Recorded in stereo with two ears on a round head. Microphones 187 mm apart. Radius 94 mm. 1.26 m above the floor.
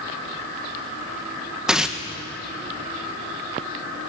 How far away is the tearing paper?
About 1.3 m.